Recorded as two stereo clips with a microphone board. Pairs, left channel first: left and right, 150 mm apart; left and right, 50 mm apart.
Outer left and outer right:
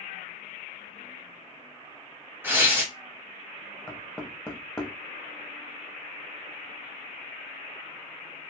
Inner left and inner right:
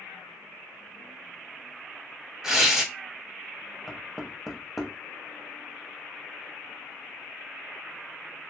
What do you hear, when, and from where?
2.4 s tearing paper: 15° right (ahead or behind), 1.4 m
3.9 s knocking: 5° left (ahead or behind), 0.8 m